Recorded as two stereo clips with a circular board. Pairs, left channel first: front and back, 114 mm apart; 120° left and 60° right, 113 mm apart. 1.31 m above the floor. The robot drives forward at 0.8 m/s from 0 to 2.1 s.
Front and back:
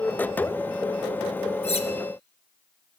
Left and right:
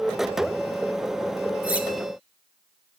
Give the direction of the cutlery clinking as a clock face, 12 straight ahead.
11 o'clock.